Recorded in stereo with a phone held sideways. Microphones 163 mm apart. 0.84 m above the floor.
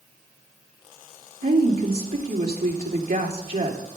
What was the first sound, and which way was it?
A woman speaking, 75° right (ahead or behind).